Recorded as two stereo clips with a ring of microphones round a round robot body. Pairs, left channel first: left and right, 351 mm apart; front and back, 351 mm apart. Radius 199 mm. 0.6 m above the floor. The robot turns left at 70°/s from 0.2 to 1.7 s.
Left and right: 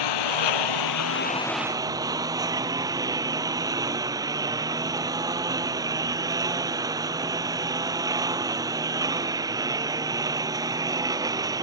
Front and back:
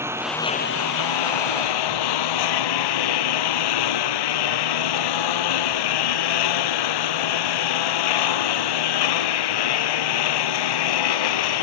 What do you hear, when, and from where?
0.0 s a lawn mower: 95° left; by 11.7 s 10° right